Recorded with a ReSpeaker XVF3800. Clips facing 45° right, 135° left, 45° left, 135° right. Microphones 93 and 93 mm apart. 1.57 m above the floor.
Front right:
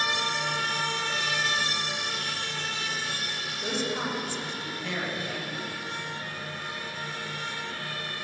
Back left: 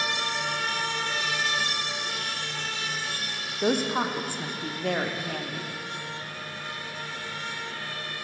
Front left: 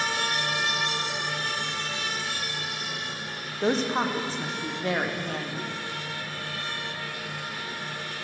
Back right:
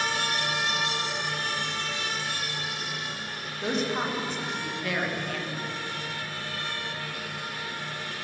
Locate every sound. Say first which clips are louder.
3.6 s a woman speaking: back left 6 dB, front left 4 dB; 100° left, 0.7 m